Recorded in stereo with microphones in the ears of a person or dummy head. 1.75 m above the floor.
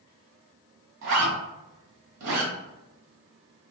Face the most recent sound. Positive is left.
turn(degrees=-60)  # may be behind; listen again after turning